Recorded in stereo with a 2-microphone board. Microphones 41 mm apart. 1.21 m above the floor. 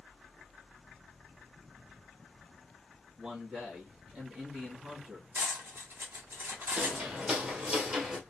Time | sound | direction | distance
3.2 | a man speaking | 25° right (ahead or behind) | 1.9 m
5.3 | cutlery clinking | 60° right (ahead or behind) | 1.4 m
6.8 | footsteps | 35° right (ahead or behind) | 2 m